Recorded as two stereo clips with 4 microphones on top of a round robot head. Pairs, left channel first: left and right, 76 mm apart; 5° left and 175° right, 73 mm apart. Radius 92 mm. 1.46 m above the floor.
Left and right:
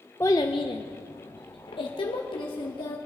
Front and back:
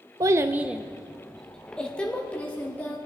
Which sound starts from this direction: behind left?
A child speaking, at 0.2 s.